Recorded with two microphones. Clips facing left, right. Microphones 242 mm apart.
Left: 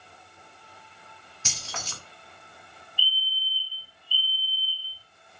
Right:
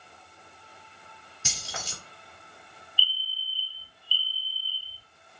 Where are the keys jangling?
10° right (ahead or behind), 1.3 m.